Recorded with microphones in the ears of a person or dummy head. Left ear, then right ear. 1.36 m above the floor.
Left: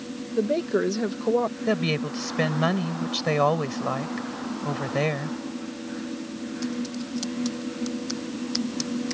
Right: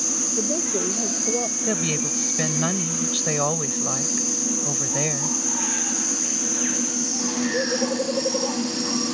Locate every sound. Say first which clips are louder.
0.3 s a woman speaking: left 1 dB; 50° left (ahead or behind); by 1.6 s 55° left (ahead or behind)
1.7 s a woman speaking: right 1 dB; 15° left (ahead or behind)